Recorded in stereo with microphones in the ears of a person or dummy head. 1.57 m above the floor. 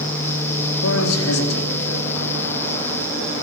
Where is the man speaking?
90° left, 3.5 m.